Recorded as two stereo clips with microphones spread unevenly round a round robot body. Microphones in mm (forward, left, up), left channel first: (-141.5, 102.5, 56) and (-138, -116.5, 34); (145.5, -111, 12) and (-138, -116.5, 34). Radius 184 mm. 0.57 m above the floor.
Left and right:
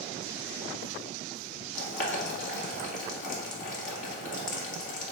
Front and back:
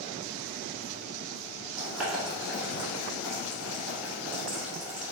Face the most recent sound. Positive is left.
turn(degrees=95)